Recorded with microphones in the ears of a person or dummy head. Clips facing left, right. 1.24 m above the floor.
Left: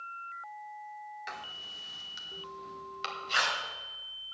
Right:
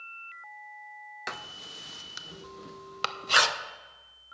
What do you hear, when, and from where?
1.3 s writing: 60° right (ahead or behind), 0.7 m